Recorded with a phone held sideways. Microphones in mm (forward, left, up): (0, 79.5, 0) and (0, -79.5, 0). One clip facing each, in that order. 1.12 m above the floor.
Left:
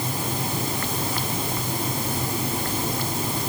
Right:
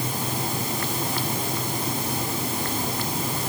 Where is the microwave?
I don't hear a microwave.